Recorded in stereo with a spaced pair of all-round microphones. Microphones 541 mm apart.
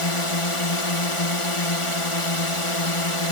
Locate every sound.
0.0 s a drone: 65° left (ahead or behind)